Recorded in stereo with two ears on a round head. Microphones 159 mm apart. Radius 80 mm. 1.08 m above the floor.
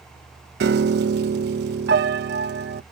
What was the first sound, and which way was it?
A piano, 60° right (ahead or behind).